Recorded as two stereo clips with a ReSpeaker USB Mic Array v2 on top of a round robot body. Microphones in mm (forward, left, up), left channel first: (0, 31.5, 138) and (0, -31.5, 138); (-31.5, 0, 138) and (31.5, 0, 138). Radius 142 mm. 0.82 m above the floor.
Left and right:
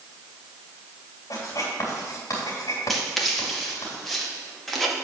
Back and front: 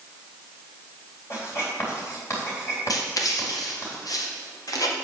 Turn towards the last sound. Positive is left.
turn(degrees=180)